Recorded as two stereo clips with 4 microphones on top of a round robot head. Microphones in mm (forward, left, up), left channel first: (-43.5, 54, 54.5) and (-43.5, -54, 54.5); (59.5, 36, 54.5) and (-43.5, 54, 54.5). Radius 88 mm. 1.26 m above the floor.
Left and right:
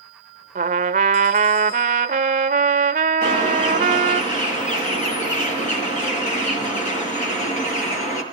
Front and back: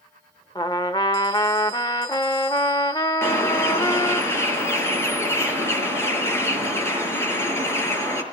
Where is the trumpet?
80° right, 0.6 m.